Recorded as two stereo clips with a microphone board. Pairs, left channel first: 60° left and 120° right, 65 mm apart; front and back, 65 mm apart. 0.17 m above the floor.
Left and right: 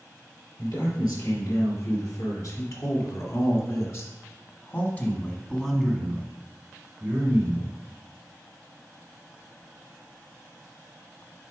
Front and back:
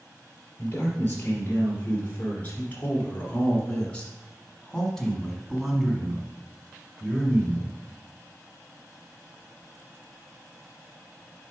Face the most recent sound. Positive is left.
turn(degrees=-135)